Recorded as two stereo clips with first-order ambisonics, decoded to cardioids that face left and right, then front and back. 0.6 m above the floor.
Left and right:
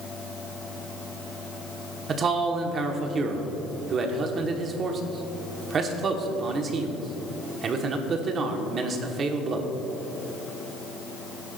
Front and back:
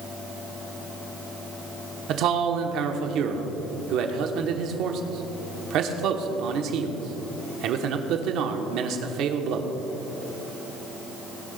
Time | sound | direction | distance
2.1 | a man speaking | 145° right | 1.1 m